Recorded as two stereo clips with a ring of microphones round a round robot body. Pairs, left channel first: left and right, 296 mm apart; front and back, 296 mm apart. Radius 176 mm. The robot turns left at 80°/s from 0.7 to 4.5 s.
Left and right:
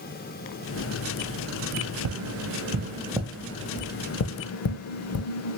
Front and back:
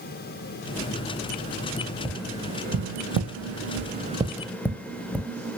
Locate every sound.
2.0 s tapping: 80° right, 0.6 m; by 5.6 s 85° left, 0.6 m